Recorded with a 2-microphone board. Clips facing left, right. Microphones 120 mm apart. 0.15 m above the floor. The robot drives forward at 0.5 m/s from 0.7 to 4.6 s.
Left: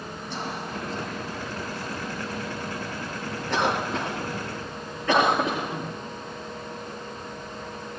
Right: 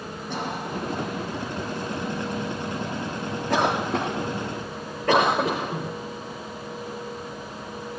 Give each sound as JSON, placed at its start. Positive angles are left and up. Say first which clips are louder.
{"t": 0.3, "sound": "a cough", "louder": "right 3 dB", "side_deg": -50, "distance_m": 6.0}